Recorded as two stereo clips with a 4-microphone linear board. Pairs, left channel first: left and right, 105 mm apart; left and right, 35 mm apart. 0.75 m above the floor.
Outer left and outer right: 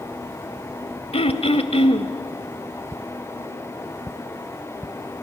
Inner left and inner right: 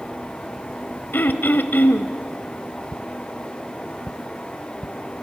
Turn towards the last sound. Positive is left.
turn(degrees=70)  # may be behind; listen again after turning